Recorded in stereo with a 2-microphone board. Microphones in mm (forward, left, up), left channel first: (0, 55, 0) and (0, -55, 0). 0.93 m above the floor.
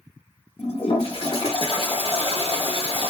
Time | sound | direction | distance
0.6 | a toilet flushing | 60° left (ahead or behind) | 1.0 m